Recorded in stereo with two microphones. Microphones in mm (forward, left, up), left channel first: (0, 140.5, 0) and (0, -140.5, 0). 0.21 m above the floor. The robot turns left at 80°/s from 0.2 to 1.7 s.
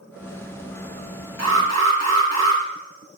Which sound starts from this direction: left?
An alarm, at 1.4 s.